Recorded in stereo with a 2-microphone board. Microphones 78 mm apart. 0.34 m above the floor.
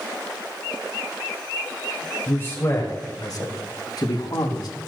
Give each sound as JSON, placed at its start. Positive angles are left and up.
{"t": 2.3, "sound": "a man speaking", "side_deg": 25, "distance_m": 1.8}